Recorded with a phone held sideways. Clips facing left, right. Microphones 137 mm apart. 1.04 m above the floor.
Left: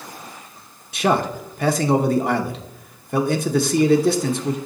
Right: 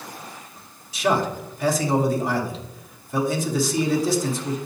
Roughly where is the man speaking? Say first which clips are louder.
Left 2 dB; left.